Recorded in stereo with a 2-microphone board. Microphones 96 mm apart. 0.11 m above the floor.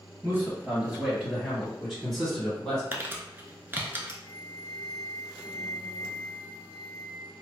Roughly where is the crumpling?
Right.